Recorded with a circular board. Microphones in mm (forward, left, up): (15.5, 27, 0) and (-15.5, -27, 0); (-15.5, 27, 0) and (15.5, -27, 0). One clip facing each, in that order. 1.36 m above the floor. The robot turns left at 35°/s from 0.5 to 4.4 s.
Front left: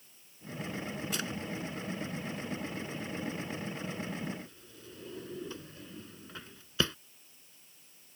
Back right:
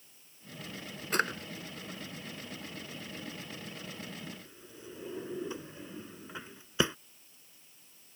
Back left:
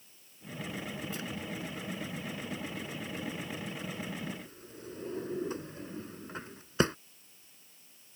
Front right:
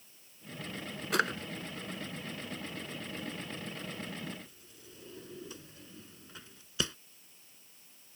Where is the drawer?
75° right; by 7.0 s 170° left.